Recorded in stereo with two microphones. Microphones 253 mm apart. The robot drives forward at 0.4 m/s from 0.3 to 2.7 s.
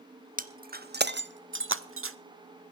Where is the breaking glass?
35° right (ahead or behind), 1.0 m; by 2.2 s 60° right (ahead or behind), 0.6 m.